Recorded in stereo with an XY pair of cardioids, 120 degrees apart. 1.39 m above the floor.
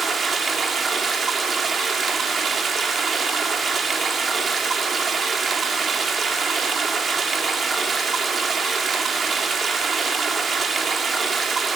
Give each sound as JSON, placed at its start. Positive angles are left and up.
{"t": 0.0, "sound": "running water", "azimuth_deg": -35, "distance_m": 2.0}